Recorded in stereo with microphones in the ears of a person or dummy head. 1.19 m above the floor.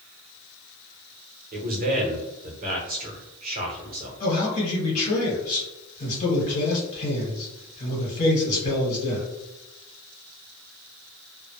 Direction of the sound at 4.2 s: 55° left (ahead or behind).